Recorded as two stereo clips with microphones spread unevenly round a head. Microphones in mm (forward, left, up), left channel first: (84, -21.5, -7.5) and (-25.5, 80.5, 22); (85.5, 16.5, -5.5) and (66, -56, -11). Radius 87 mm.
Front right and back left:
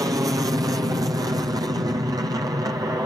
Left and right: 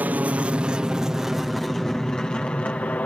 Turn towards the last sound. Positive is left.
turn(degrees=80)